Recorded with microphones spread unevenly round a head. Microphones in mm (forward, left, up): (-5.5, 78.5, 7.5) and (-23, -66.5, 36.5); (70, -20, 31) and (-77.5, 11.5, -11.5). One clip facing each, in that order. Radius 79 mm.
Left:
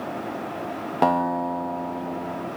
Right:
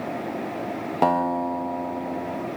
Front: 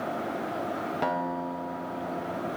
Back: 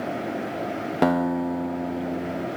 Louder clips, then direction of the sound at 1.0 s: Even, back 11 dB; 175° left.